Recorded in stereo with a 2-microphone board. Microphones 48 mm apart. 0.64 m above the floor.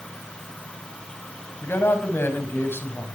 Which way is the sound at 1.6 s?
55° left (ahead or behind).